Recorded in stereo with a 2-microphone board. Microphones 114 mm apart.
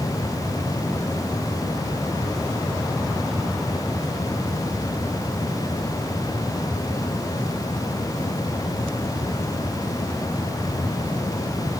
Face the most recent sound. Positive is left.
No sound to turn to.